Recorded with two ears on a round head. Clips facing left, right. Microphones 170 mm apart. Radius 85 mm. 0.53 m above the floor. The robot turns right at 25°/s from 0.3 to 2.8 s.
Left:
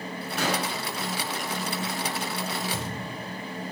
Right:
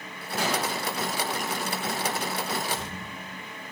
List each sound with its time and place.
0.4 s an explosion: 55° left (ahead or behind), 6 m; by 0.7 s 65° left (ahead or behind), 6 m
2.7 s a thud: 85° left, 7.5 m